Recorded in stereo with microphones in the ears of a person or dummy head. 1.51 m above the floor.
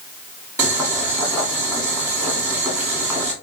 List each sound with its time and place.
0.6 s boiling: 10° right (ahead or behind), 1.8 m